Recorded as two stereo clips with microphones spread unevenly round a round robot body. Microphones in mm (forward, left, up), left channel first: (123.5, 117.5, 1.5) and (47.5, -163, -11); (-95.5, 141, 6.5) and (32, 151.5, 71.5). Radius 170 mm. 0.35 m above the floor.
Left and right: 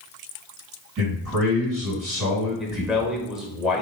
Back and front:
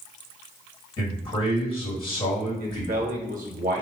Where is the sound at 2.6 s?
20° right, 1.0 m.